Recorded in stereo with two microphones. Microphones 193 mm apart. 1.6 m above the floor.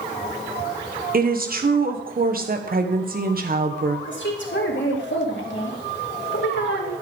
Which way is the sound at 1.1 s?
50° right (ahead or behind).